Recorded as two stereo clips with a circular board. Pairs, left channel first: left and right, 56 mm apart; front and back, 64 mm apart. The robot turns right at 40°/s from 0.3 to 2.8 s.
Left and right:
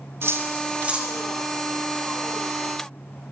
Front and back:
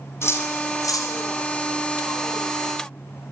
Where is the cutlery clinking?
45° right, 4 m; by 1.1 s 10° right, 4 m.